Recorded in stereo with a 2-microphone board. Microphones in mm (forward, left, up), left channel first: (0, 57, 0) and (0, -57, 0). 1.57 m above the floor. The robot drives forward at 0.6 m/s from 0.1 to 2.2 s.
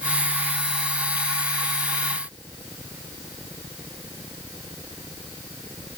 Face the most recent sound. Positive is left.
No sound to turn to.